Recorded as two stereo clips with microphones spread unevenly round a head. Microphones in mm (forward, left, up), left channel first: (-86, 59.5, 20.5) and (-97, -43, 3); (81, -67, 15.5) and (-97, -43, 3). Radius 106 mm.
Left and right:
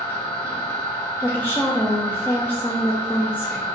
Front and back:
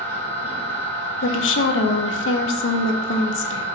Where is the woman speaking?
5° left, 0.5 m.